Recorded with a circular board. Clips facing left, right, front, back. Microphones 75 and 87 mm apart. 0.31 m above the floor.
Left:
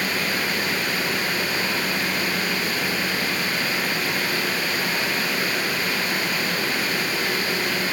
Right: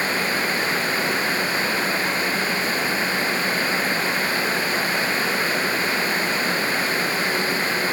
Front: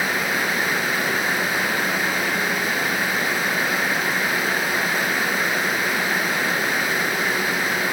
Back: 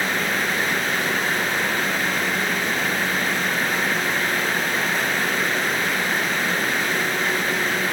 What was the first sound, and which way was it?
Only background noise.